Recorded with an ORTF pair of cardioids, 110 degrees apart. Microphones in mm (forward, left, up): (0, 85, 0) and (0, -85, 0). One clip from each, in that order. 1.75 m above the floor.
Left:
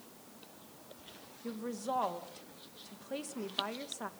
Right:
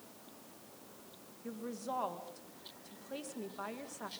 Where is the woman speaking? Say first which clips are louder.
Left 3 dB; 20° left, 2.5 m.